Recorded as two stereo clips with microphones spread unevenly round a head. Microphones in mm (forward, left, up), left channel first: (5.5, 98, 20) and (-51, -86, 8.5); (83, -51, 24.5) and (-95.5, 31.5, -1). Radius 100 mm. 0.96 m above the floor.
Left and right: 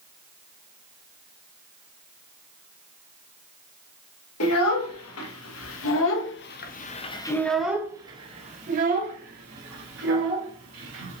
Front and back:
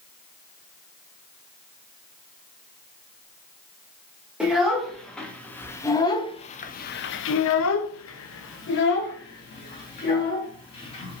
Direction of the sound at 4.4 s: 70° left.